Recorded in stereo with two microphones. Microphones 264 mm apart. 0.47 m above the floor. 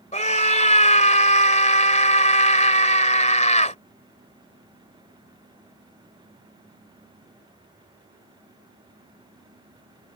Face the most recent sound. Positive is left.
turn(degrees=25)  # may be behind; listen again after turning